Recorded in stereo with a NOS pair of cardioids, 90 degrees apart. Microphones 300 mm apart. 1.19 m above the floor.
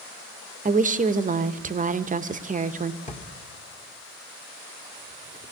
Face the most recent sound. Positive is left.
turn(degrees=25)